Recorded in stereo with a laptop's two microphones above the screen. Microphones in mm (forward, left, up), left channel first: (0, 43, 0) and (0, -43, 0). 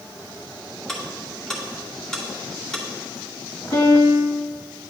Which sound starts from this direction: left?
A piano, at 3.7 s.